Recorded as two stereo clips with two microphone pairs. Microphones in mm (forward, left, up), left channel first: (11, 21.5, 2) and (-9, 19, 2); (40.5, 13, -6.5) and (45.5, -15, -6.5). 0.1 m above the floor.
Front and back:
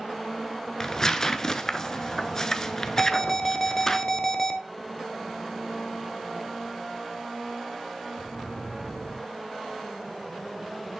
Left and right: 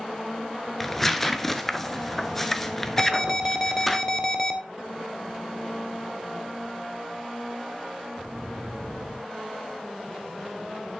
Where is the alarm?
55° left, 0.8 m.